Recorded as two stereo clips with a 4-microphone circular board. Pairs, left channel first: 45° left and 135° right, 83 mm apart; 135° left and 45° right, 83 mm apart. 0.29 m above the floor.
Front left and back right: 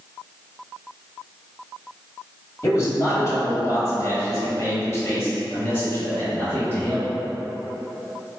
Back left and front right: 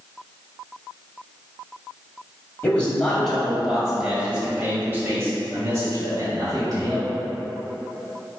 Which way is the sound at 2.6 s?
70° left.